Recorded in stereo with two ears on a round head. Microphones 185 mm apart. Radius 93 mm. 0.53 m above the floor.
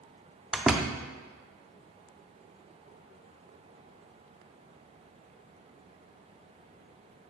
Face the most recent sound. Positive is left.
turn(degrees=-5)  # may be behind; listen again after turning